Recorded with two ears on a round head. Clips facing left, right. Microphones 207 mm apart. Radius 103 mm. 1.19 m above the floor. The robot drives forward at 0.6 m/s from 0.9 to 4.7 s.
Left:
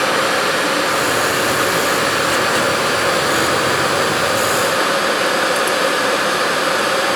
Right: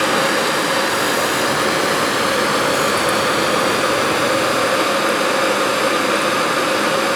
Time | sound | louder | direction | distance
0.0 | running water | even | 60° right (ahead or behind) | 5 m